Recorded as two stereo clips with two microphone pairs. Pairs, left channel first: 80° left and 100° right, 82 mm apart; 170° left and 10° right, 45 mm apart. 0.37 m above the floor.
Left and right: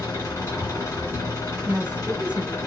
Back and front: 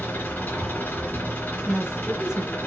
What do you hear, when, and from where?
0.0 s an engine running: 135° left, 2.5 m
1.6 s a woman speaking: 70° right, 0.8 m